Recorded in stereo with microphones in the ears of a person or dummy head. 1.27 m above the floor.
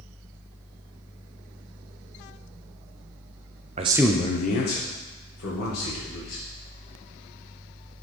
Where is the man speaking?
30° right (ahead or behind), 0.6 m; by 6.4 s 75° left (ahead or behind), 3 m.